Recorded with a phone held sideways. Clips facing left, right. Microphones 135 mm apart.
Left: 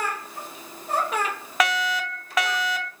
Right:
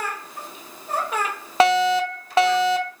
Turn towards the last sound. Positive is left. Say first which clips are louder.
# right 8 dB
turn(degrees=-30)  # may be behind; listen again after turning